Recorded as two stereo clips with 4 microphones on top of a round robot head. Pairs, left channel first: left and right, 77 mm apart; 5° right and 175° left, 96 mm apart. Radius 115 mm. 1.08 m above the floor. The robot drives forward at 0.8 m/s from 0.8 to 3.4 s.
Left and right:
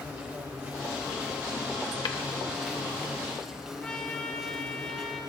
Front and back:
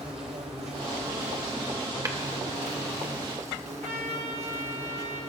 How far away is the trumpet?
About 2.5 m.